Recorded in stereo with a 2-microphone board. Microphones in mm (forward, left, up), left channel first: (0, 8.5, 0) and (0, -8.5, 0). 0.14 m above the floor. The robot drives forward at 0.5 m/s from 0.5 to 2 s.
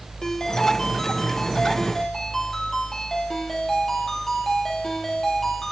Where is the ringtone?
35° left (ahead or behind), 1.7 m; by 5.7 s 25° left (ahead or behind), 2.5 m.